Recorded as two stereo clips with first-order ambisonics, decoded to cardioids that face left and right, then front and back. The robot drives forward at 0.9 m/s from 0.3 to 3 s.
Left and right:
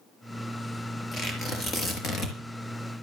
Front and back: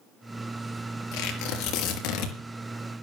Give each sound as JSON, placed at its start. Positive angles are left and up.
{"t": 1.1, "sound": "tearing paper", "azimuth_deg": 20, "distance_m": 5.5}